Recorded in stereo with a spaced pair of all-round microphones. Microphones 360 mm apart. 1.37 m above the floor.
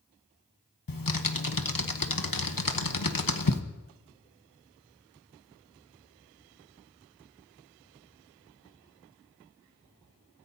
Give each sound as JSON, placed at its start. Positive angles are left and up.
{"t": 0.9, "sound": "typing on a keyboard", "side_deg": 65, "distance_m": 1.1}